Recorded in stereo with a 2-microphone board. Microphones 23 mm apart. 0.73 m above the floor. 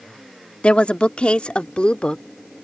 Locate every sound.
0.6 s a woman speaking: 60° left (ahead or behind); by 2.2 s 50° left (ahead or behind)